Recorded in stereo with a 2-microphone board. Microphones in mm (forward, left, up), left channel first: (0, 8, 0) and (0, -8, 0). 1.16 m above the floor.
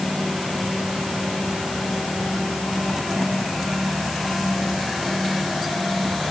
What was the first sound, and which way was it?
Only background noise.